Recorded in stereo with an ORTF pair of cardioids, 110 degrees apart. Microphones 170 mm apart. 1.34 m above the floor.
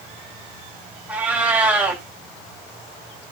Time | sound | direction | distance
1.1 | a cat meowing | 10° right | 4 m